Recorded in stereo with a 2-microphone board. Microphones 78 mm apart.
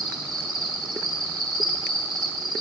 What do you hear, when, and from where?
0.0 s an insect: 60° right (ahead or behind), 0.7 m